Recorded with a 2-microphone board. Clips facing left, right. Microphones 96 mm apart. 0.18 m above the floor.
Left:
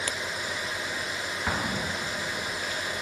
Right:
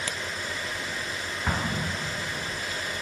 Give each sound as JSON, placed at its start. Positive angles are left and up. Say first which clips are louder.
{"t": 1.5, "sound": "an explosion", "louder": "right 1 dB", "side_deg": 0, "distance_m": 1.1}